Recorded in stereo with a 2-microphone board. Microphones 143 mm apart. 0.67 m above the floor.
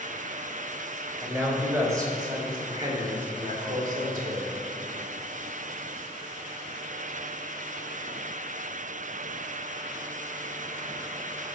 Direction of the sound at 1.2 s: 15° right (ahead or behind).